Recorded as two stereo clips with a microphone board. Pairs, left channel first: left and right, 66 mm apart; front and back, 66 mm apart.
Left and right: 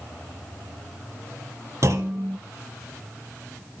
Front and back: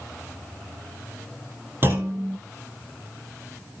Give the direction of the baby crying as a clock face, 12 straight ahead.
I don't hear a baby crying.